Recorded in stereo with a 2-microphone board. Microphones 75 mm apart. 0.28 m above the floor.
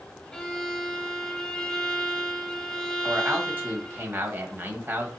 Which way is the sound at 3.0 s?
30° right (ahead or behind).